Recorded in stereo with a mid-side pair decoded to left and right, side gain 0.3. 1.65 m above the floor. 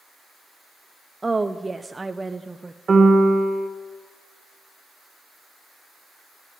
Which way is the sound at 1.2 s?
25° right.